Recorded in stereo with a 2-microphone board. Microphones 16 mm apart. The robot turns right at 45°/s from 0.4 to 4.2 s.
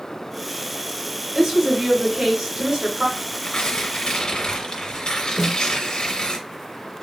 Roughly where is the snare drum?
Centre.